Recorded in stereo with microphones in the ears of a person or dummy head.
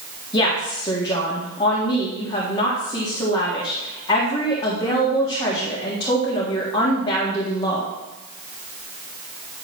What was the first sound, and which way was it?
A woman speaking, 25° left (ahead or behind).